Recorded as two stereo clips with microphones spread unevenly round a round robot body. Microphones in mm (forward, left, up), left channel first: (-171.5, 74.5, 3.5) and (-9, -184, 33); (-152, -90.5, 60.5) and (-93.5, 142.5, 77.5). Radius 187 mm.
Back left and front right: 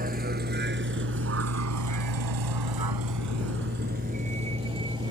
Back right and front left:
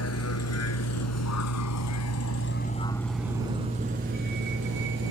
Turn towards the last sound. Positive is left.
turn(degrees=20)